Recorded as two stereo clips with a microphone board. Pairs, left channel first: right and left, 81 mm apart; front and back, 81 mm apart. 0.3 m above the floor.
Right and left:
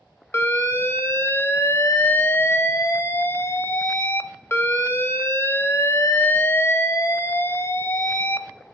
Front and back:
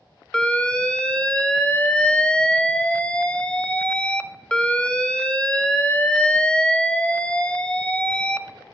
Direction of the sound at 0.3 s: 65° right.